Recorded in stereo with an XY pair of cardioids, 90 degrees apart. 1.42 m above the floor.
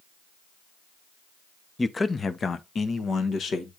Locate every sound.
1.8 s a man speaking: 20° left, 0.7 m; by 3.7 s 65° left, 1.7 m